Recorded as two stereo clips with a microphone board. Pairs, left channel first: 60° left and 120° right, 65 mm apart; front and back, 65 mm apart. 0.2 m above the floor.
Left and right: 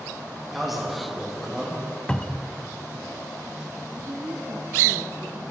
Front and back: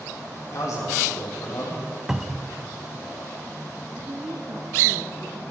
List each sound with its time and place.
0.5 s a man speaking: 30° right, 6.5 m
2.1 s a cupboard door: 110° left, 0.6 m
4.0 s a woman speaking: 155° right, 1.9 m